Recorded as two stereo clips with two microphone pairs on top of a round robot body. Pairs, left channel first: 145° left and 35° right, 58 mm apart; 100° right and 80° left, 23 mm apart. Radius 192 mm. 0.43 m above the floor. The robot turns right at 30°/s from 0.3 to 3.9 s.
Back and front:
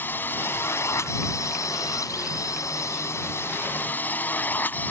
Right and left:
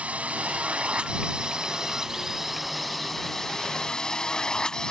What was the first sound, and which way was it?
A drone, 95° left.